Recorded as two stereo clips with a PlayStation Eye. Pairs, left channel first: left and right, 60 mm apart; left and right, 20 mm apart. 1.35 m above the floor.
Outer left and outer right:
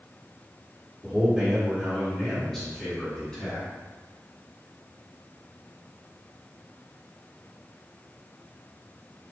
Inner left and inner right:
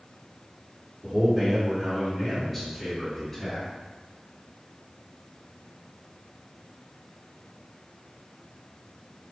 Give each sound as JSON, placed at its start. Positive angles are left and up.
{"t": 1.0, "sound": "a man speaking", "side_deg": -5, "distance_m": 1.5}